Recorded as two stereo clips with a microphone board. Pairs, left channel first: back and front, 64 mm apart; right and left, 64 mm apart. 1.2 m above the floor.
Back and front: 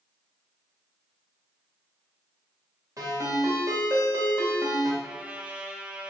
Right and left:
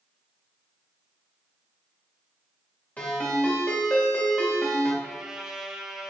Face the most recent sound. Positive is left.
turn(degrees=30)